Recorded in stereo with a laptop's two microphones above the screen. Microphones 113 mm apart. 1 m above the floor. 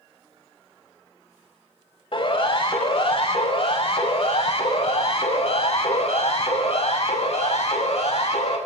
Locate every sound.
2.1 s a siren: 50° left (ahead or behind), 7.5 m; by 8.6 s 70° left (ahead or behind), 9.5 m